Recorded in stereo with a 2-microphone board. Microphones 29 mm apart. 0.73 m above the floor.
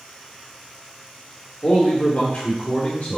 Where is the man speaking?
60° left (ahead or behind), 2.5 m.